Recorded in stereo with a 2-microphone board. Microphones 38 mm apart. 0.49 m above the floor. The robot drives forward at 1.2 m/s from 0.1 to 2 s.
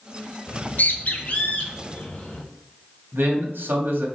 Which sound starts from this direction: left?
A bird, at 0.5 s.